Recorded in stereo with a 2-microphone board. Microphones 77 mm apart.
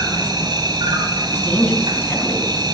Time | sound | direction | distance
0.0 | an insect | 75° right (ahead or behind) | 1.7 m
1.3 | a woman speaking | 25° left (ahead or behind) | 4.5 m